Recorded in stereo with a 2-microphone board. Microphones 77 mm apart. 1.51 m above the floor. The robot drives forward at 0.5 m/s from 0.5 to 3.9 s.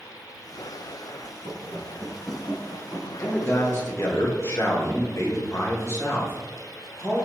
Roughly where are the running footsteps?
Left.